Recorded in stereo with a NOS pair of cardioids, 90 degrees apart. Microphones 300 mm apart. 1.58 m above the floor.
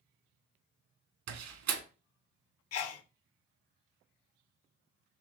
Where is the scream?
No scream in this recording.